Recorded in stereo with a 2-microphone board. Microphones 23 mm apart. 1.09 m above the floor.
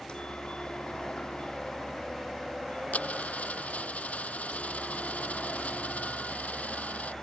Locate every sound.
0.0 s a helicopter: 40° left (ahead or behind)
2.9 s a dropped coin: 85° left